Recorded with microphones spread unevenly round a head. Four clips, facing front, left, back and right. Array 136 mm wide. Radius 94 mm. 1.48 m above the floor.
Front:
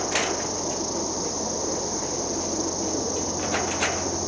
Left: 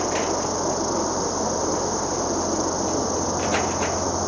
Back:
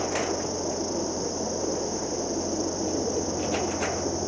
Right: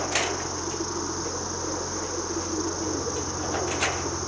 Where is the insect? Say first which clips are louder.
Left 5 dB, front 1 dB; 115° left.